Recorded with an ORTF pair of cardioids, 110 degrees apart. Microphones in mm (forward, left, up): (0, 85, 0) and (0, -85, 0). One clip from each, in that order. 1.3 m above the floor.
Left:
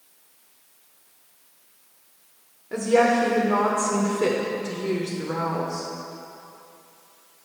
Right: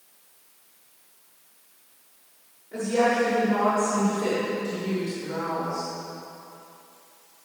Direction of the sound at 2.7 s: 70° left.